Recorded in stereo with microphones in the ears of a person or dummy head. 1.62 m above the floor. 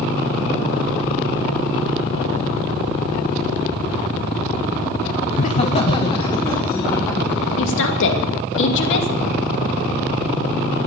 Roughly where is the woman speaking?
Left.